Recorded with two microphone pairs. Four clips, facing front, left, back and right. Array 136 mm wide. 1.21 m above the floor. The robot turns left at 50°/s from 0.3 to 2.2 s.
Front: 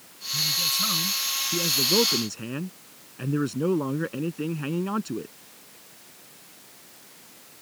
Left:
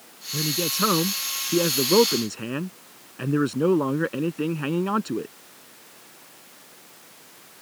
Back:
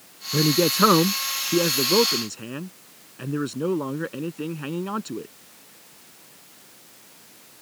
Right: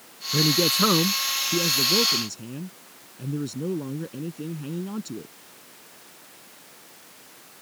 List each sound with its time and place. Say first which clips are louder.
0.3 s a man speaking: right 5 dB, back 16 dB; 165° right; by 5.3 s 100° left